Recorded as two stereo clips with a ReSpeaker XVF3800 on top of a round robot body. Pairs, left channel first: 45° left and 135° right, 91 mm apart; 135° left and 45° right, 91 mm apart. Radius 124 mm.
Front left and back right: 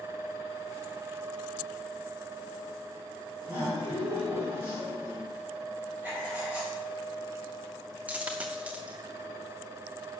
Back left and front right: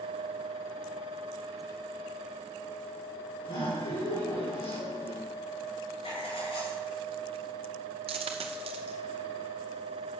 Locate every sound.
3.4 s laughter: 170° left, 4 m
6.0 s writing: 150° left, 4 m
8.1 s a dropped coin: 60° right, 0.7 m